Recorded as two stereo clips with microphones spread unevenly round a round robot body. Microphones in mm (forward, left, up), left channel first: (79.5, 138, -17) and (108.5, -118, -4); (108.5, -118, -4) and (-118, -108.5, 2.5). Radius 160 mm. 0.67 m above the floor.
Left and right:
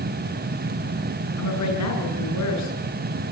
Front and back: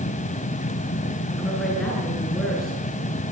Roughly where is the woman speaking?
Left.